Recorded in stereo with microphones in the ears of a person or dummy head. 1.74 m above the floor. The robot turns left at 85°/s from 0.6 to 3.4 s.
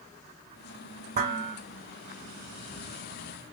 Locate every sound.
1.1 s dishes clattering: 130° right, 2 m; by 1.6 s 165° right, 2 m